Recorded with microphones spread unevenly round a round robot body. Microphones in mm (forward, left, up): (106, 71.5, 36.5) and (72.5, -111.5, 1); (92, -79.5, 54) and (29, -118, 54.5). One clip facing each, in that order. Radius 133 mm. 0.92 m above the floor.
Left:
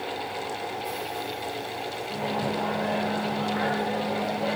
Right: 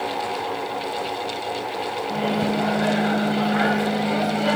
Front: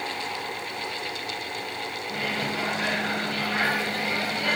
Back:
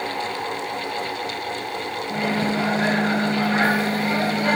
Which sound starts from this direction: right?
A microwave, at 2.1 s.